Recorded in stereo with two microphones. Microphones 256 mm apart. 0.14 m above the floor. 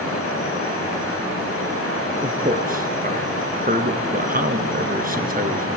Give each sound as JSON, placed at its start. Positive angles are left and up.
{"t": 2.2, "sound": "a man speaking", "side_deg": -35, "distance_m": 1.6}